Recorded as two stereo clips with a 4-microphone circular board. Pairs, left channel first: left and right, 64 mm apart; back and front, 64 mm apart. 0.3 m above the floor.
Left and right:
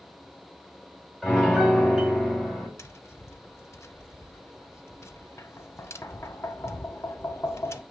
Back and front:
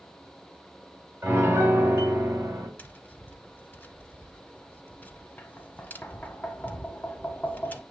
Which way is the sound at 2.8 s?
125° left.